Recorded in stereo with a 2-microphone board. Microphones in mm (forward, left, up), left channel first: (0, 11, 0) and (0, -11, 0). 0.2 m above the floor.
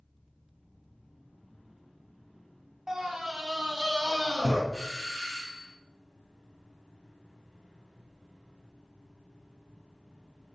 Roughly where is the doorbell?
Centre.